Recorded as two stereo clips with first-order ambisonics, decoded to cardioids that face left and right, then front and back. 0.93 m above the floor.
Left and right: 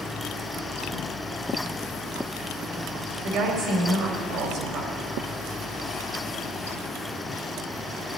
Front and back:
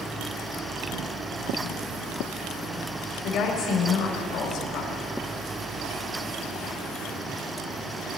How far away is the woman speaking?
About 3 m.